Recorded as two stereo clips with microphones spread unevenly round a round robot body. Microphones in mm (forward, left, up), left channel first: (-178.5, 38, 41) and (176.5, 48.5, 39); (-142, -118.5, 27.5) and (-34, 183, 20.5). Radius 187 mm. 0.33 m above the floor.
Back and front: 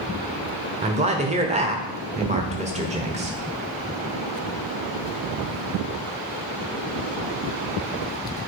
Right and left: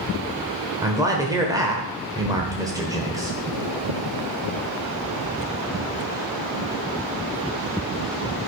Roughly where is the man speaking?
Ahead.